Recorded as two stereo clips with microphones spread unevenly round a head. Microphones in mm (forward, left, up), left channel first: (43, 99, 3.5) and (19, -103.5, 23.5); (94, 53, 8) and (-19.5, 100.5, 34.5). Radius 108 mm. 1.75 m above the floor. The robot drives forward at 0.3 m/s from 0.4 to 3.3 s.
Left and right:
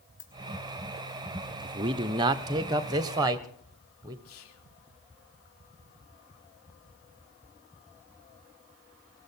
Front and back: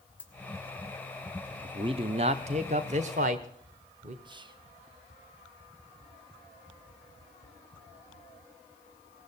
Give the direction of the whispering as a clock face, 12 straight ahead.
8 o'clock.